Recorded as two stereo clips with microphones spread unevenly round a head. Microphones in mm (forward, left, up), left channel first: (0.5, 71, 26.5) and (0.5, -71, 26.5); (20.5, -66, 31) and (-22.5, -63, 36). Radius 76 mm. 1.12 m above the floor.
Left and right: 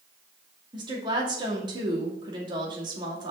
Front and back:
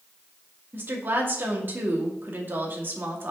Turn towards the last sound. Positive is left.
turn(degrees=-150)